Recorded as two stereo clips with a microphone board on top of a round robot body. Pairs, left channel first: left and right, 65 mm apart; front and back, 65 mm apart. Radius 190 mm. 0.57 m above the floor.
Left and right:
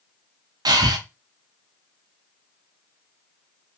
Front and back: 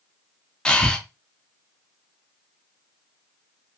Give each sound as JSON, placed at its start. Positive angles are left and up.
{"t": 0.7, "sound": "breathing", "azimuth_deg": -75, "distance_m": 0.5}